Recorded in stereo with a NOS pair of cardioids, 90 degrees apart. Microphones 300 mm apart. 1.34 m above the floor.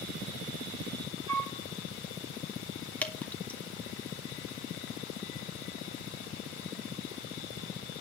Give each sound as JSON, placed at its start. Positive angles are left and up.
{"t": 1.3, "sound": "a flute", "azimuth_deg": -65, "distance_m": 8.0}
{"t": 3.0, "sound": "dripping", "azimuth_deg": 5, "distance_m": 1.9}